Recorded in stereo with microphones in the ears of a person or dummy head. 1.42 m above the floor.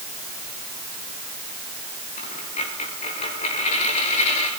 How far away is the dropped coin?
About 6 m.